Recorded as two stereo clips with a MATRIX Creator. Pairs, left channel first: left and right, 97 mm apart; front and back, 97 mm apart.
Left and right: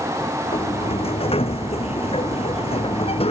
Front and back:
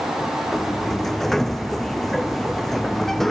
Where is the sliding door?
85° left.